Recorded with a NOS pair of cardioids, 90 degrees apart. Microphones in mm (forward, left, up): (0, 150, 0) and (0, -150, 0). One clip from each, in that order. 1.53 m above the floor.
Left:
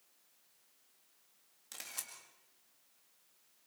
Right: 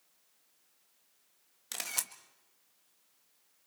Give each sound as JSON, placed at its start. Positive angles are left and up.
{"t": 1.7, "sound": "a camera shutter", "azimuth_deg": -65, "distance_m": 1.8}